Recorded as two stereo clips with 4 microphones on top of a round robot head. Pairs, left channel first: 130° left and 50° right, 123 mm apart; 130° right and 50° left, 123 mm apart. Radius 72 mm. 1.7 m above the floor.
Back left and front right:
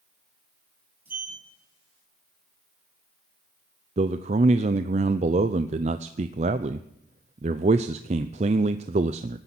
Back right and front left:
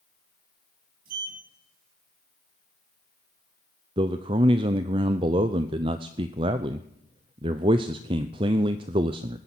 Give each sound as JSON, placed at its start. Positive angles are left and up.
{"t": 1.1, "sound": "a sliding door", "azimuth_deg": 30, "distance_m": 8.5}
{"t": 4.0, "sound": "a man speaking", "azimuth_deg": -5, "distance_m": 0.6}